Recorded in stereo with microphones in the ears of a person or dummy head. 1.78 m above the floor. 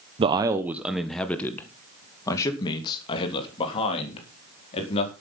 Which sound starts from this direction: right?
A man speaking, at 0.2 s.